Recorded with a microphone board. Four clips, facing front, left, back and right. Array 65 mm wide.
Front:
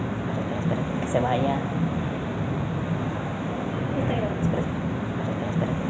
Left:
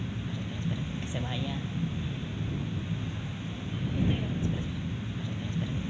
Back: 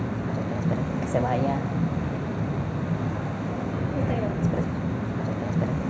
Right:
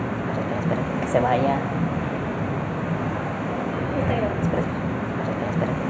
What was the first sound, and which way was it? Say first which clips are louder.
A vehicle: right 12 dB, front 1 dB; 75° right.